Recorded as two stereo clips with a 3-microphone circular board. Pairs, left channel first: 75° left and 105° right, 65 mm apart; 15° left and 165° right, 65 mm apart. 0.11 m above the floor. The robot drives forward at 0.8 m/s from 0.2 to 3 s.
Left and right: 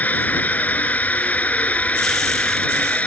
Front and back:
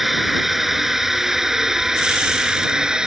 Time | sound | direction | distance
0.0 | a drone | 110° left | ?